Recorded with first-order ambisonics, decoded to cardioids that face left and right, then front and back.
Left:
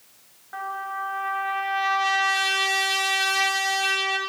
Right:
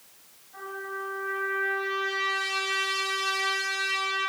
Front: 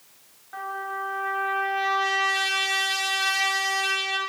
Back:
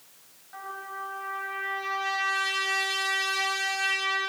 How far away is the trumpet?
About 4 m.